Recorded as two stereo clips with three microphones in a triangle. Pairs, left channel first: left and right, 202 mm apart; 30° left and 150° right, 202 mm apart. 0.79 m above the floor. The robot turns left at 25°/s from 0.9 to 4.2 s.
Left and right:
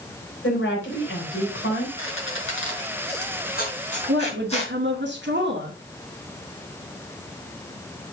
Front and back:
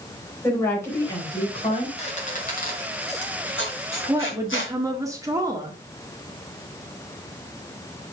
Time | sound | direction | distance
0.4 | a woman speaking | 105° left | 4 m
2.0 | a squeak | 85° left | 4 m
4.1 | a woman speaking | 75° right | 2.0 m